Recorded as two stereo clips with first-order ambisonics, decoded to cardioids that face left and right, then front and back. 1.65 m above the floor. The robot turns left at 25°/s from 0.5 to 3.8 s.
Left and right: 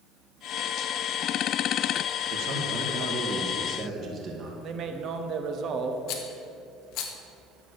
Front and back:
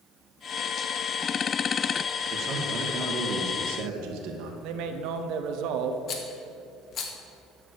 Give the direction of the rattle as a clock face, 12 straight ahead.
10 o'clock.